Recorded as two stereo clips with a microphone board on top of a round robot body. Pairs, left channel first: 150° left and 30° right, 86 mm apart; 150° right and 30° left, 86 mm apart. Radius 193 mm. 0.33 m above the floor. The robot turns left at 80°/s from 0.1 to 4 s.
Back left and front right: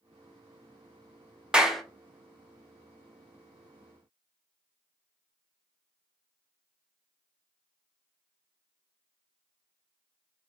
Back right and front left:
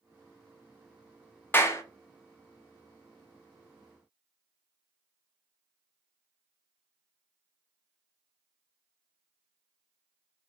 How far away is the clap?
About 0.7 m.